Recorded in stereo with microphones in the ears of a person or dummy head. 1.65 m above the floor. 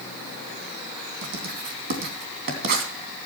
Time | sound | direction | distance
1.2 | writing | 55° right (ahead or behind) | 3 m